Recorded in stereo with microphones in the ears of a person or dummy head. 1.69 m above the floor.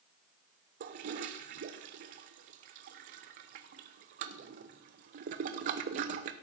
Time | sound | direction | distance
0.8 | a toilet flushing | 45° right (ahead or behind) | 0.7 m